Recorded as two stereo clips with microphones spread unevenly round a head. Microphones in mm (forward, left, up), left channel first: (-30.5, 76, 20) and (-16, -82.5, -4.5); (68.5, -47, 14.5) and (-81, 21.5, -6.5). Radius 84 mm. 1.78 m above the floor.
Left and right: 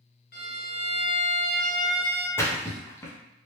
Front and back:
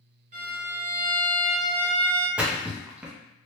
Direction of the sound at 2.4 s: 65° left.